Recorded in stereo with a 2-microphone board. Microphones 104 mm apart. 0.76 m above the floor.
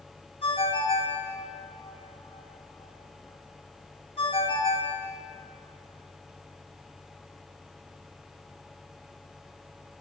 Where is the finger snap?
I don't hear a finger snap.